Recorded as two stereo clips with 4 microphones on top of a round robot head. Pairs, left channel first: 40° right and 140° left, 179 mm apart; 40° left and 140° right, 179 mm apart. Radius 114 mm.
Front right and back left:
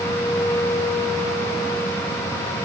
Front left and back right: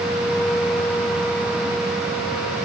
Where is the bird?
I don't hear a bird.